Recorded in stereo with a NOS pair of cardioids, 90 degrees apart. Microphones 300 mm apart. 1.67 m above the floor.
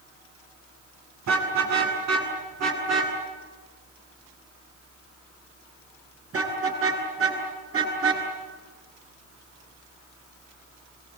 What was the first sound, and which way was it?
A car horn, 65° right.